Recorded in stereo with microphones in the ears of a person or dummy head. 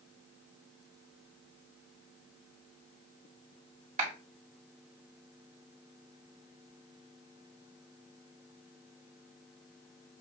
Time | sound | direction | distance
4.0 | a clap | 40° right (ahead or behind) | 2 m